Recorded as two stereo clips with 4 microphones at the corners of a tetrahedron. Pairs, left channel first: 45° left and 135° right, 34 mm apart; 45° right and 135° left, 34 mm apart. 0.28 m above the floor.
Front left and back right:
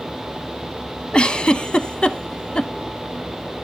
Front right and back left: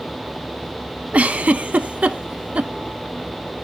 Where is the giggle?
100° left, 0.6 m.